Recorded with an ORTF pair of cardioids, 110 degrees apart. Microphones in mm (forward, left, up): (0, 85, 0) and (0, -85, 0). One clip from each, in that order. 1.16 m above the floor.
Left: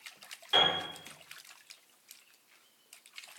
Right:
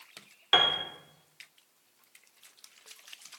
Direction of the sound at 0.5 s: 70° right.